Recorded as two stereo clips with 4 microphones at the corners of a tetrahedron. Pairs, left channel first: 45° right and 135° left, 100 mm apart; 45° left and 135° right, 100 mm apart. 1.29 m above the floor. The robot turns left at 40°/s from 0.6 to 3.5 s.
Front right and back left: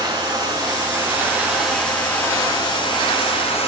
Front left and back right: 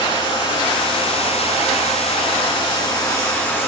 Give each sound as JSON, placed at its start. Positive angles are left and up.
{"t": 0.0, "sound": "running water", "azimuth_deg": 90, "distance_m": 9.0}